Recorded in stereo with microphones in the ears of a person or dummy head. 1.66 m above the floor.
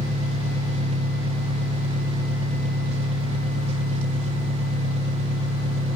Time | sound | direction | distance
0.0 | an engine running | 40° right (ahead or behind) | 2 m